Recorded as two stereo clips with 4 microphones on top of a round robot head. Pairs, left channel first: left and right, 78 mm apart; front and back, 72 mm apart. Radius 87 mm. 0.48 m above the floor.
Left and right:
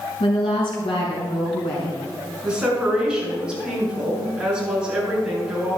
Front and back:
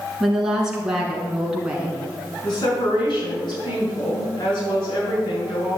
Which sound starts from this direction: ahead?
A woman speaking, at 2.4 s.